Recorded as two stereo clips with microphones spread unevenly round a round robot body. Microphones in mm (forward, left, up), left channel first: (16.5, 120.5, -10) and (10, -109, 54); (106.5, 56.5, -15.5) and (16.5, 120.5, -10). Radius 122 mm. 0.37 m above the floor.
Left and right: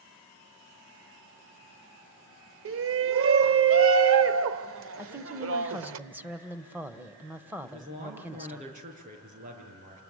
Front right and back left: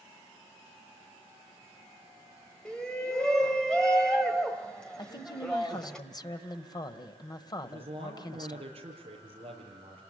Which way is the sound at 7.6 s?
155° right.